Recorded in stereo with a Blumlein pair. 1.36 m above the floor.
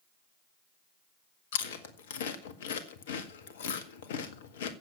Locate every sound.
1.5 s chewing: 55° left, 1.8 m